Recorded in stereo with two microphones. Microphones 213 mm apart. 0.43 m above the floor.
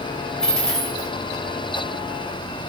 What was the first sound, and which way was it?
A dropped coin, 5° left (ahead or behind).